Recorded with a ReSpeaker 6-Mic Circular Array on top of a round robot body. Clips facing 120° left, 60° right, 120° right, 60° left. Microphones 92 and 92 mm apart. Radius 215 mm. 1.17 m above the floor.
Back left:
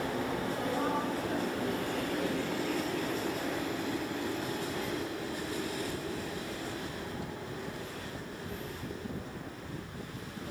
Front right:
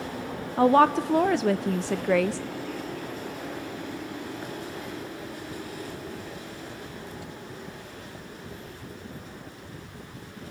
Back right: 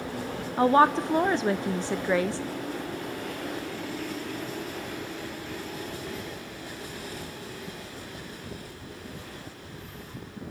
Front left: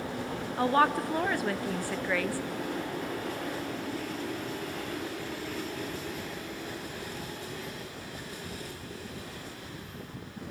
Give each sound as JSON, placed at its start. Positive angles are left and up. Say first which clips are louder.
{"t": 0.6, "sound": "a woman speaking", "louder": "front right 17 dB, back right 5 dB", "azimuth_deg": -55, "distance_m": 0.7}